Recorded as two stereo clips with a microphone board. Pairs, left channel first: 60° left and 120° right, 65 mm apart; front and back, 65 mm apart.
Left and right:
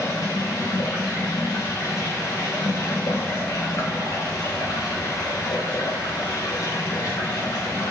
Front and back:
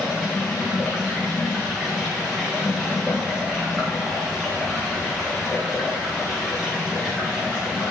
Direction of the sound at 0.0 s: 95° left.